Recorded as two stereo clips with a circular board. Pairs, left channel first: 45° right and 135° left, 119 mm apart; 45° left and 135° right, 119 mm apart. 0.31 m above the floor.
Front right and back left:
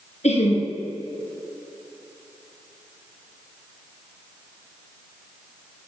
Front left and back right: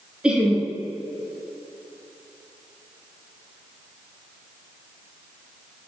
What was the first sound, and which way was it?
Laughter, 55° right.